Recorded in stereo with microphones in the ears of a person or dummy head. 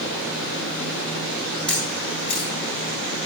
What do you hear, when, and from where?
1.7 s a camera shutter: 10° left (ahead or behind), 1.7 m